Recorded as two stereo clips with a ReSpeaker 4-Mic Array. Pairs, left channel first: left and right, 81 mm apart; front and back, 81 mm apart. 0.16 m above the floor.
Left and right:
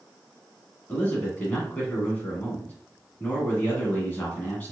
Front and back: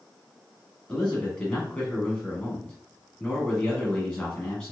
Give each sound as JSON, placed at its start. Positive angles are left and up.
{"t": 0.9, "sound": "a man speaking", "azimuth_deg": 55, "distance_m": 1.2}